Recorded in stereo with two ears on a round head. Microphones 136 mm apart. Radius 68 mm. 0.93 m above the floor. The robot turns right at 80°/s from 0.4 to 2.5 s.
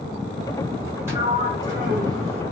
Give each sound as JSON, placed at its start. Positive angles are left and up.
{"t": 1.1, "sound": "a sliding door", "azimuth_deg": -160, "distance_m": 1.5}